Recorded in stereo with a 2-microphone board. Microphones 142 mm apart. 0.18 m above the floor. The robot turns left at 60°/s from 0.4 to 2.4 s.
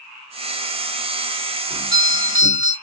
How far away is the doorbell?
About 2.5 m.